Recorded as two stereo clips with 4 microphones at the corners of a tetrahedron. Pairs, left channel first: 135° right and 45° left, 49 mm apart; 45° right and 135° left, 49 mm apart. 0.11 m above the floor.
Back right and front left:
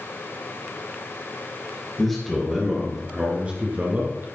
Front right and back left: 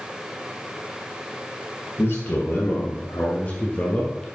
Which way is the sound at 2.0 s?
50° right.